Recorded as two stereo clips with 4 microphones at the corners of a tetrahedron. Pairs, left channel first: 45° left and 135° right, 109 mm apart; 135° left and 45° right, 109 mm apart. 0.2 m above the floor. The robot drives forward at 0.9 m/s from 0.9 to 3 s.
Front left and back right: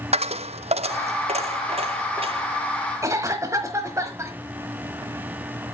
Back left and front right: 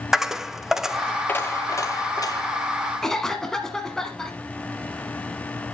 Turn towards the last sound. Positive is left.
turn(degrees=-145)